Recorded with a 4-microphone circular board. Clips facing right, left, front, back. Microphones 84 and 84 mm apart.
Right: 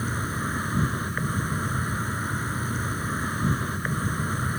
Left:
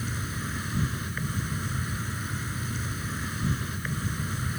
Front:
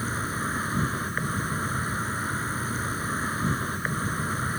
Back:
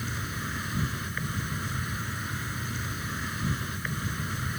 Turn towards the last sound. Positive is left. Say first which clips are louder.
# right 5 dB, front 6 dB
turn(degrees=-50)